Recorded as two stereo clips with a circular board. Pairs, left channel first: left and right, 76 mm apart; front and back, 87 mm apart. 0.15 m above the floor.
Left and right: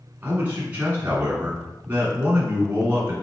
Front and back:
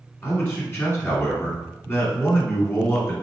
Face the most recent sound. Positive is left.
turn(degrees=-45)